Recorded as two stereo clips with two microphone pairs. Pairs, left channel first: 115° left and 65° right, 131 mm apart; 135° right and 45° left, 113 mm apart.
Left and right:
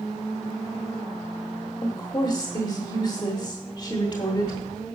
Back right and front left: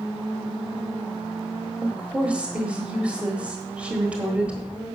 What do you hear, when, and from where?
1.8 s a woman speaking: 115° left, 1.4 m